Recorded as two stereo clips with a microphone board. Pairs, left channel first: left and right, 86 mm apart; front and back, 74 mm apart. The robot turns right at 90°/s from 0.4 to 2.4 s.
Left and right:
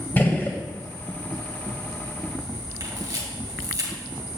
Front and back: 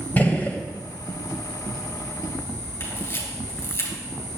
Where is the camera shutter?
55° right, 3 m.